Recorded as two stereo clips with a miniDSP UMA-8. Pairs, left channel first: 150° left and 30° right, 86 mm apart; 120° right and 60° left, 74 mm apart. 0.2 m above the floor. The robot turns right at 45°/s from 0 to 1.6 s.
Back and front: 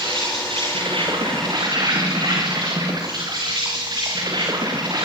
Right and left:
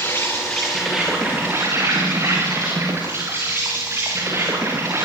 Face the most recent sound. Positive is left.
turn(degrees=5)